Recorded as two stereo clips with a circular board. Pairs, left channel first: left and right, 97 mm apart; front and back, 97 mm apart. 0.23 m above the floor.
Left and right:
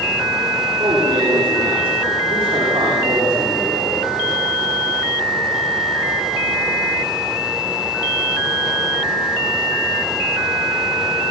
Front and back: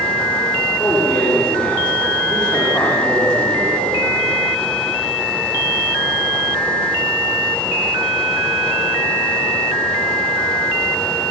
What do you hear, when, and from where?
0.8 s a man speaking: 75° right, 9.5 m